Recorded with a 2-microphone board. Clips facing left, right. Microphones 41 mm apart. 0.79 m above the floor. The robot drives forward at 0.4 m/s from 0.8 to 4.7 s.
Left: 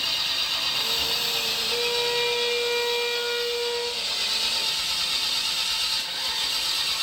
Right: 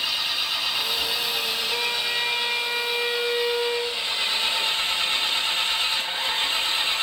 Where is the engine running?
10° right (ahead or behind), 2.5 m; by 7.0 s 30° right (ahead or behind), 0.8 m.